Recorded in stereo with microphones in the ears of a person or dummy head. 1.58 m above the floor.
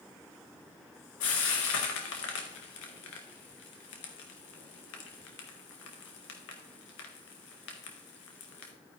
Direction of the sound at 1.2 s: 80° left.